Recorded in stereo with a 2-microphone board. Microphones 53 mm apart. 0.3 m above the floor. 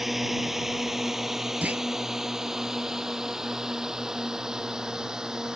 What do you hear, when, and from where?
0.0 s a drone: 5° right (ahead or behind); by 5.5 s 15° right (ahead or behind)
1.6 s a clunk: 25° right (ahead or behind)